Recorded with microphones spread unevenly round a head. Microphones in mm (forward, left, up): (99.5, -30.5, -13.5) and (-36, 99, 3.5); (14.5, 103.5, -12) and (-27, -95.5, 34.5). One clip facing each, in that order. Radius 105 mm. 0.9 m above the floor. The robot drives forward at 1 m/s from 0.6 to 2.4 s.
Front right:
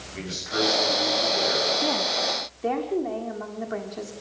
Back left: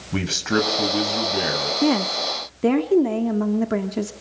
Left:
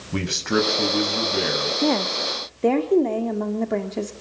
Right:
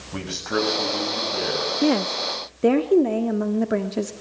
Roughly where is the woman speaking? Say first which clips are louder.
Back left 7 dB, right 2 dB; behind.